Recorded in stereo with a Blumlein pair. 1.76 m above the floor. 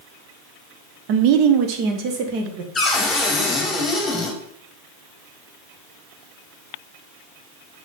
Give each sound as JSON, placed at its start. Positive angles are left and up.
{"t": 1.1, "sound": "a woman speaking", "azimuth_deg": -45, "distance_m": 1.0}
{"t": 2.8, "sound": "a cupboard door", "azimuth_deg": 10, "distance_m": 3.0}